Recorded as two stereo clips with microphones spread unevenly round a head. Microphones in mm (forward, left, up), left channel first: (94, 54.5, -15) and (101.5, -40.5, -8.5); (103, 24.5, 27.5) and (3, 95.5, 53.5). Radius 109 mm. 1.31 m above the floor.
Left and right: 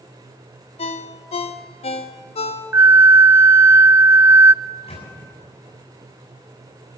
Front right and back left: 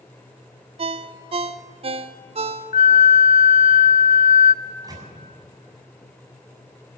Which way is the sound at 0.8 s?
115° left.